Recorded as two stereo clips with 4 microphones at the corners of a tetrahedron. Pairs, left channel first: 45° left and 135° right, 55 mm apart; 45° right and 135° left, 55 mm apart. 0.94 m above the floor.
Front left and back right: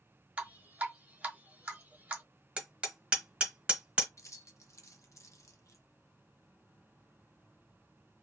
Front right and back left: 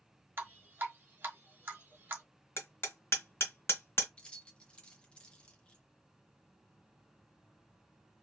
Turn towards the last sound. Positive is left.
turn(degrees=25)